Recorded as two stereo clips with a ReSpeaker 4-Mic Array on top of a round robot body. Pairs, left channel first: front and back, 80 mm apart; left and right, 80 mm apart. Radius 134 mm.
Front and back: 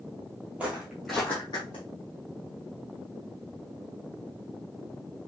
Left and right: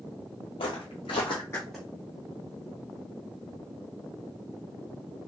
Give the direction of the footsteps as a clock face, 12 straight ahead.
8 o'clock.